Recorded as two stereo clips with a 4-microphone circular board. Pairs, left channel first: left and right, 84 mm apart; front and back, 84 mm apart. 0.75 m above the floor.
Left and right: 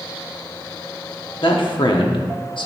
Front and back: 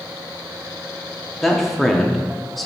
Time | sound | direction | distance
1.4 | a man speaking | 90° left | 1.0 m